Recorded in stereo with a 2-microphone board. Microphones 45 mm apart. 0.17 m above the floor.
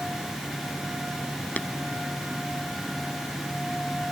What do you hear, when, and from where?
1.6 s tapping: 35° left (ahead or behind)